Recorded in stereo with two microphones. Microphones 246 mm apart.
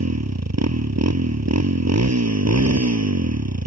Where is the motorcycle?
80° right.